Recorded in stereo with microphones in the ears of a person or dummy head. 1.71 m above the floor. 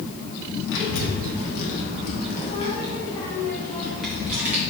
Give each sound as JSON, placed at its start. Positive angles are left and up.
{"t": 0.7, "sound": "a child speaking", "side_deg": 65, "distance_m": 1.9}